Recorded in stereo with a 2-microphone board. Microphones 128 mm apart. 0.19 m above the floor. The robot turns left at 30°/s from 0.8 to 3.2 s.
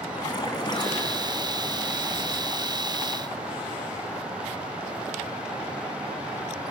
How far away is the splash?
About 2.0 m.